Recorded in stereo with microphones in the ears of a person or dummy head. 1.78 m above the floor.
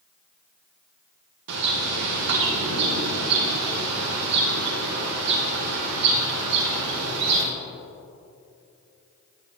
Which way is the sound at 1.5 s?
60° right (ahead or behind).